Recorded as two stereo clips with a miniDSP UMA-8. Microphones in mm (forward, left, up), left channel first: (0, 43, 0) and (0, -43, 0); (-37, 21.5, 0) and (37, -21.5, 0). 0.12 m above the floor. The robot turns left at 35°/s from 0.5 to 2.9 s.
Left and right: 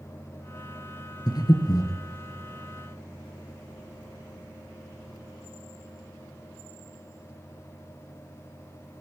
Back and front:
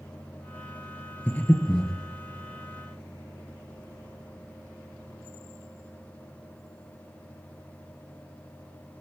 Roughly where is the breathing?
Left.